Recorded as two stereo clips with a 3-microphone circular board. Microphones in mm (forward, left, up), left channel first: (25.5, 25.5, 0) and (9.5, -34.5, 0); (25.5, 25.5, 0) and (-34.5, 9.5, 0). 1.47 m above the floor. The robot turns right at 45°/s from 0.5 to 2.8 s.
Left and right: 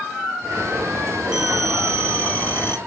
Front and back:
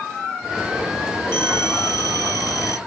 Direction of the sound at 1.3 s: 30° right.